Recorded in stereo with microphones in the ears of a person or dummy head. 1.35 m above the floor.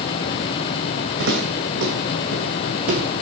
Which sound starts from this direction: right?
Footsteps, at 1.2 s.